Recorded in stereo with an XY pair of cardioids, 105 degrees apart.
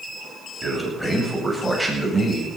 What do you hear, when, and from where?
0.6 s a man speaking: straight ahead, 8 m; by 2.5 s 10° right, 7.5 m